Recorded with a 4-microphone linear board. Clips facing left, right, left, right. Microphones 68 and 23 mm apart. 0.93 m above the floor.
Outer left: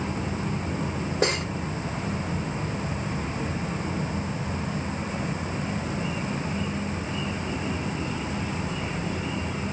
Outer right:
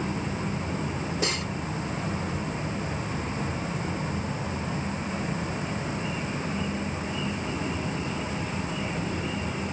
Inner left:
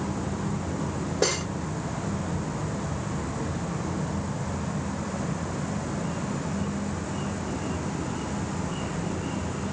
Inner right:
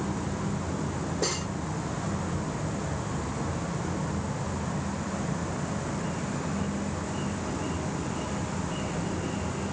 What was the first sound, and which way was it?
Cutlery clinking, 50° left (ahead or behind).